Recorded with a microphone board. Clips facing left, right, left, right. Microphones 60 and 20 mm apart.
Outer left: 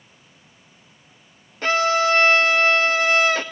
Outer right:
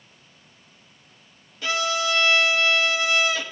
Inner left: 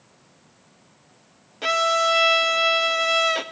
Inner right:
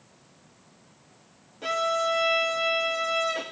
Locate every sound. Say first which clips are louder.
1.6 s a violin: outer left 6 dB, inner left 6 dB; 45° left (ahead or behind), 0.5 m